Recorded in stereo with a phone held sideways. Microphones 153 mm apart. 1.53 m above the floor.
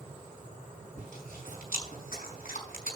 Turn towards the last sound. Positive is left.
turn(degrees=65)  # may be behind; listen again after turning